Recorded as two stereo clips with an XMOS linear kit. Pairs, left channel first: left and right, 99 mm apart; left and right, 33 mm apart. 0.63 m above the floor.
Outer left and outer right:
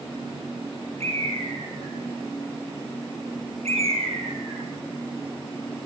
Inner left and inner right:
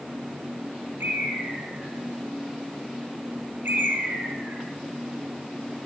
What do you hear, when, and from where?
1.0 s a bird: 80° right, 4.5 m